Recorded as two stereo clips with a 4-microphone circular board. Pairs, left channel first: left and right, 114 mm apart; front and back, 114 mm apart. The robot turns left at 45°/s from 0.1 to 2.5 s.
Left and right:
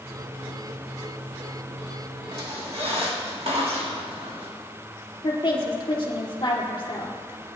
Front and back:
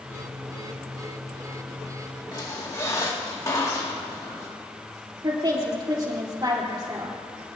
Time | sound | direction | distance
2.3 | a squeak | 55° right | 2.5 m
5.2 | a woman speaking | 135° left | 3.5 m